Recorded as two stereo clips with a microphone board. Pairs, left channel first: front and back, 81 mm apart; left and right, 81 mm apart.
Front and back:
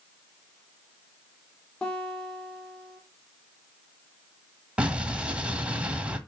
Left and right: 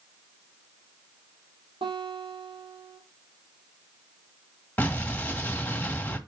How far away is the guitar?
About 2.5 m.